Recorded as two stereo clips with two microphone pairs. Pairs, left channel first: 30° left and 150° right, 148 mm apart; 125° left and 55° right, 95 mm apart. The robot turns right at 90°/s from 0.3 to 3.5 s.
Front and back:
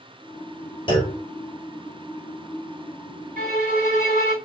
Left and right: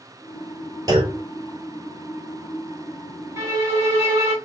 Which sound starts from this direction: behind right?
A violin, at 3.4 s.